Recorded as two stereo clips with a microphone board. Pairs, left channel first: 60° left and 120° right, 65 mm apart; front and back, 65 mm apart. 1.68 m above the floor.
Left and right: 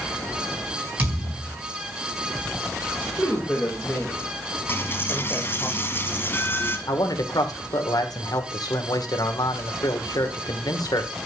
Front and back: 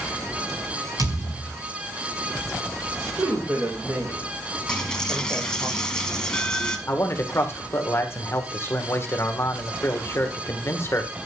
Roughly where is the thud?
Behind.